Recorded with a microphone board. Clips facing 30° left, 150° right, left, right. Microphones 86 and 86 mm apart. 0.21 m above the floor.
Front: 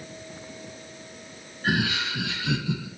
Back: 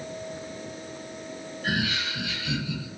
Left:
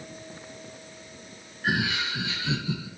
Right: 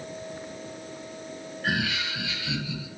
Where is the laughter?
10° left, 1.9 m; by 2.9 s 50° left, 2.5 m.